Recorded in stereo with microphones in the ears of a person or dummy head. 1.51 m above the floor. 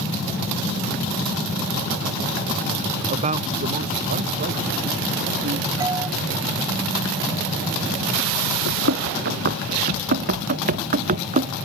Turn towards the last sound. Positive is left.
turn(degrees=-40)  # may be behind; listen again after turning